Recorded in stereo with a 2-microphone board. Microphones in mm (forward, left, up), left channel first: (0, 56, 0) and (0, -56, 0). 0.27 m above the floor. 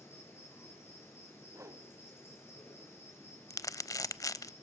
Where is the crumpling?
30° left (ahead or behind), 0.6 m.